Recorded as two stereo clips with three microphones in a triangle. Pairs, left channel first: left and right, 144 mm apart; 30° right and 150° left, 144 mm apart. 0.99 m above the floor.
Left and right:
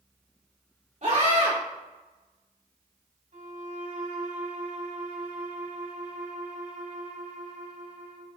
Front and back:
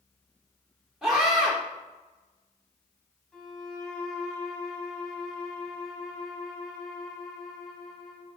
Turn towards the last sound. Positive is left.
turn(degrees=-115)